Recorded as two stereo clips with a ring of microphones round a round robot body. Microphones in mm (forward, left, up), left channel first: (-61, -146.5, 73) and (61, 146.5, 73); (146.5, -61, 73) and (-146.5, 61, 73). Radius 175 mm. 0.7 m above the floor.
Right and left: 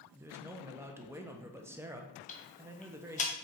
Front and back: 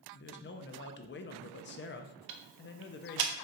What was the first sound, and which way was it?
A man speaking, 10° right.